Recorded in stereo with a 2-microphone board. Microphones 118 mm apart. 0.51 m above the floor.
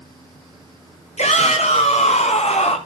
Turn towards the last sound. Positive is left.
turn(degrees=70)  # may be behind; listen again after turning